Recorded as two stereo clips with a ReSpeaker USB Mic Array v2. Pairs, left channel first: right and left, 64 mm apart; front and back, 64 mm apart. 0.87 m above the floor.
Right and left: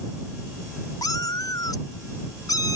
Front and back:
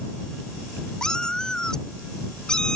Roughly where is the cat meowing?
Right.